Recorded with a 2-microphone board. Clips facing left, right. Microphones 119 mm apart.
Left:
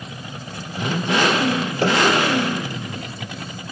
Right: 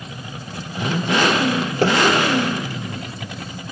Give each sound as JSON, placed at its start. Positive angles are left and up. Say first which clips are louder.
{"t": 1.8, "sound": "a pop", "louder": "right 2 dB", "side_deg": -55, "distance_m": 2.5}